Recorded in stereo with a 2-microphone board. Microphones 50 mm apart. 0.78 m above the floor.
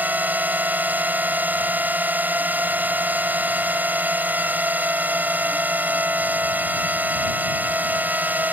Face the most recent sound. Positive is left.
turn(degrees=-35)  # may be behind; listen again after turning